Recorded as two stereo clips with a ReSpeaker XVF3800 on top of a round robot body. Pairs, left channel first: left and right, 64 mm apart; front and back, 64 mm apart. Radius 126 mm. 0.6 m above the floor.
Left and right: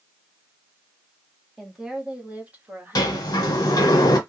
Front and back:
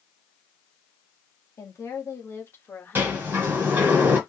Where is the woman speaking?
5° right, 1.6 m; by 3.8 s 65° right, 1.6 m.